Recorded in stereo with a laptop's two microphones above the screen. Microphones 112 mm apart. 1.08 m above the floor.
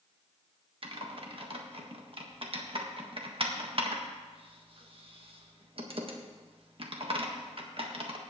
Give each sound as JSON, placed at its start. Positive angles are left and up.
{"t": 0.8, "sound": "typing on a keyboard", "side_deg": -50, "distance_m": 1.6}